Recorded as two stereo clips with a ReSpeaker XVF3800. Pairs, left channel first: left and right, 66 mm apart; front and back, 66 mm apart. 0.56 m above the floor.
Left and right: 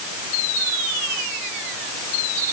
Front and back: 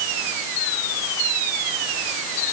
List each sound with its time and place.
Only background noise.